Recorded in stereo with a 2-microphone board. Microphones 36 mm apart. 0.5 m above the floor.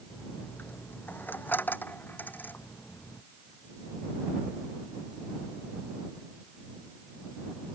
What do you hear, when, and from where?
0.1 s a dropped coin: 65° left (ahead or behind)